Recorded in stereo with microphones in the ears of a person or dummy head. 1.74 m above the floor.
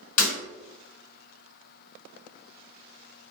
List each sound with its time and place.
0.2 s breaking glass: 40° left (ahead or behind), 1.9 m